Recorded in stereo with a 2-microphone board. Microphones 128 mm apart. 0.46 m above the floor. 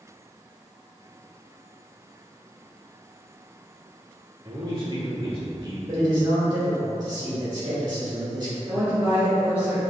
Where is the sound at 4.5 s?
35° right (ahead or behind), 0.9 m.